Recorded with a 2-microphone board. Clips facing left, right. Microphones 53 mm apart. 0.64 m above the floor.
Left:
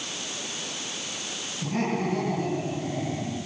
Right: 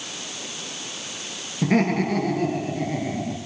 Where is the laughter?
70° right (ahead or behind), 9 m.